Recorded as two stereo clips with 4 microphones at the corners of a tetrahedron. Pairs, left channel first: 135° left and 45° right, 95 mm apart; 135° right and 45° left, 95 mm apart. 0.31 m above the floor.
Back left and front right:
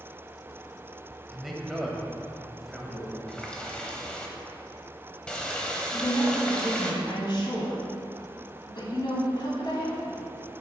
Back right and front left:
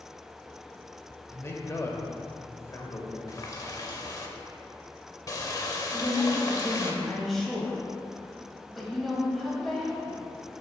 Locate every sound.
1.3 s a man speaking: 135° right, 1.0 m
3.3 s a running tap: 150° right, 0.8 m
5.9 s a woman speaking: 140° left, 1.5 m